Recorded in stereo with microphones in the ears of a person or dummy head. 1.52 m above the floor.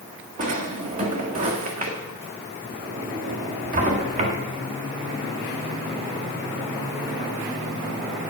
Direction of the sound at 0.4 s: 45° right (ahead or behind).